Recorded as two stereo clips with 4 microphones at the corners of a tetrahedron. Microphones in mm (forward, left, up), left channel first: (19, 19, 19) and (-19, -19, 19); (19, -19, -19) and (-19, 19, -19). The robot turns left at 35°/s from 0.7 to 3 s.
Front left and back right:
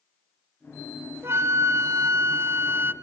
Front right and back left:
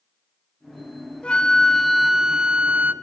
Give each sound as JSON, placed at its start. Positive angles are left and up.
{"t": 1.2, "sound": "a flute", "azimuth_deg": -110, "distance_m": 0.9}